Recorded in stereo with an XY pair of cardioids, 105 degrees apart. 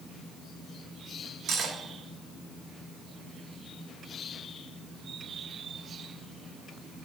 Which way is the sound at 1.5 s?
65° right.